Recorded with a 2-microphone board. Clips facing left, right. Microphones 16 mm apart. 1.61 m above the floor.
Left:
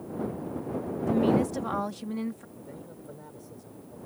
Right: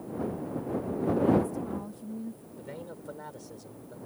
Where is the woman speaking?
75° left (ahead or behind).